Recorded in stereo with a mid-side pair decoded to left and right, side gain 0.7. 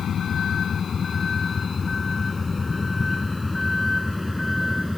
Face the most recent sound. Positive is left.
turn(degrees=10)